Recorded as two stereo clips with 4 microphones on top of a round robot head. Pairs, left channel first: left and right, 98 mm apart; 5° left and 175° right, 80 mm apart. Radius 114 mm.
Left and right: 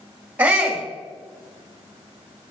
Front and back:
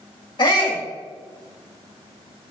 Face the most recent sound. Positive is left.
turn(degrees=-20)